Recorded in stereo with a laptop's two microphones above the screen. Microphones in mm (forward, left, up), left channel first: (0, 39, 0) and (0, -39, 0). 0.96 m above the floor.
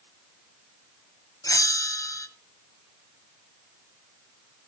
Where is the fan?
I don't hear a fan.